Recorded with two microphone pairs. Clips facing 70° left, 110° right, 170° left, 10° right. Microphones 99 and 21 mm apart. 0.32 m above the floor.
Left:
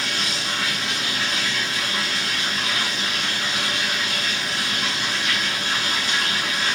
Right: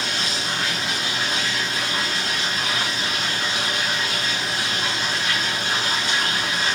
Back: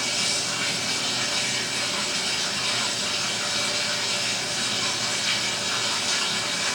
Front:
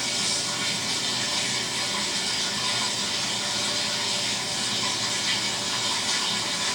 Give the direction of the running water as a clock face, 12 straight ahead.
5 o'clock.